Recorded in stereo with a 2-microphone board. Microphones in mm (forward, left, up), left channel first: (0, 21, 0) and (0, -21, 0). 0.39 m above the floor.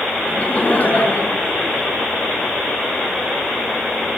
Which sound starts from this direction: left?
Laughter, at 0.3 s.